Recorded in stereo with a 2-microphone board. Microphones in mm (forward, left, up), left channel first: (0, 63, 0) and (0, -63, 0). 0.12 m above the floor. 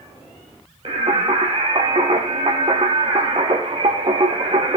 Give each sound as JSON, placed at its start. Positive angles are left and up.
{"t": 0.8, "sound": "singing", "side_deg": -50, "distance_m": 1.1}